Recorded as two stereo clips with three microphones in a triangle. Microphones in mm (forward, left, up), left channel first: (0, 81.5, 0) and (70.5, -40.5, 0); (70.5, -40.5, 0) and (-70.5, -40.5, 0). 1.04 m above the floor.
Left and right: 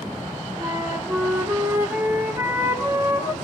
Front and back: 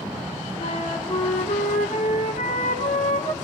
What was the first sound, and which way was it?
A flute, 10° left.